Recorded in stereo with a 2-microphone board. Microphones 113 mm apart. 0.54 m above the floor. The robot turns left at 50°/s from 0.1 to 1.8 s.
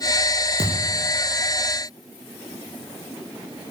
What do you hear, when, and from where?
0.6 s a thud: 70° right (ahead or behind), 4.5 m; by 1.1 s 50° right (ahead or behind), 4.5 m